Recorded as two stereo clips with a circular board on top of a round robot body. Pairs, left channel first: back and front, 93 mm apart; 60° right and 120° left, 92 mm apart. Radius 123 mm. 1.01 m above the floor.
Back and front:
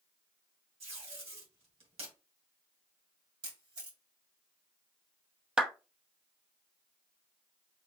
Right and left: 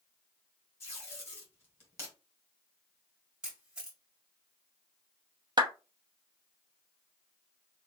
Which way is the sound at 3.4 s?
35° left.